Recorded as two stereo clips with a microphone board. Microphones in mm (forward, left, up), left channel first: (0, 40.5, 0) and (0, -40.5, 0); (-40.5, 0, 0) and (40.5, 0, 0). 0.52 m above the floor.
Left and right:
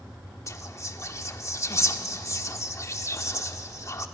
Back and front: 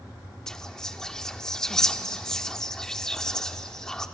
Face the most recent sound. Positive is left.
turn(degrees=100)